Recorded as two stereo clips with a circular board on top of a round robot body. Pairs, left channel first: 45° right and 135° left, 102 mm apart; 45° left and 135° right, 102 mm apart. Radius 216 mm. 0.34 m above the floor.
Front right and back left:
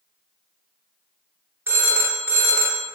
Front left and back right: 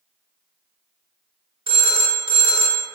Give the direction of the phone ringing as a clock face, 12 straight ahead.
5 o'clock.